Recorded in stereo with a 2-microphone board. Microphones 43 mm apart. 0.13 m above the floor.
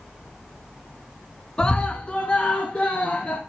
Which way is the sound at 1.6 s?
25° left (ahead or behind).